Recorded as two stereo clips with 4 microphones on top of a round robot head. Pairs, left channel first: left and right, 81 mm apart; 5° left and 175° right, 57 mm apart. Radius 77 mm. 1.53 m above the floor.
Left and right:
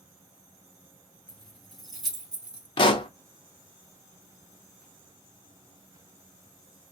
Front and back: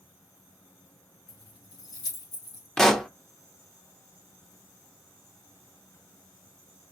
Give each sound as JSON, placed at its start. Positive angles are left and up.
{"t": 1.3, "sound": "keys jangling", "azimuth_deg": 10, "distance_m": 2.5}
{"t": 2.8, "sound": "a pop", "azimuth_deg": 90, "distance_m": 0.9}